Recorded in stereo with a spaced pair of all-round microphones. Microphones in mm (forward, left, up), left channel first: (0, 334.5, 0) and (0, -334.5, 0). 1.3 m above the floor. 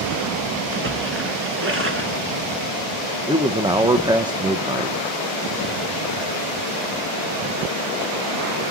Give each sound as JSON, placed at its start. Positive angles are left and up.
{"t": 0.7, "sound": "a splash", "side_deg": -20, "distance_m": 1.6}
{"t": 3.3, "sound": "a man speaking", "side_deg": -5, "distance_m": 0.6}